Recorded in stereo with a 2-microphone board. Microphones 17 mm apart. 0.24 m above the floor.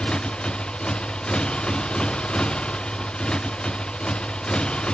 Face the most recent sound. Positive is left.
turn(degrees=70)  # may be behind; listen again after turning